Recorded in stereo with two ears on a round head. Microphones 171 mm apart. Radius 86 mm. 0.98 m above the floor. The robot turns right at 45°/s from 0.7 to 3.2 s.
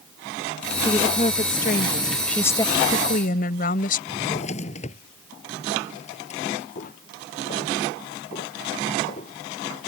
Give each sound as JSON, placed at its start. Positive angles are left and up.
{"t": 0.8, "sound": "a woman speaking", "azimuth_deg": 20}
{"t": 2.3, "sound": "a woman speaking", "azimuth_deg": 5}
{"t": 4.1, "sound": "a drawer", "side_deg": 40}
{"t": 6.8, "sound": "footsteps", "side_deg": 45}